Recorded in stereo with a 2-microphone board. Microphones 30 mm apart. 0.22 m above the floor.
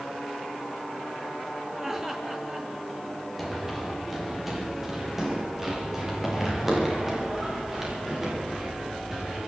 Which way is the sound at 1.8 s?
15° right (ahead or behind).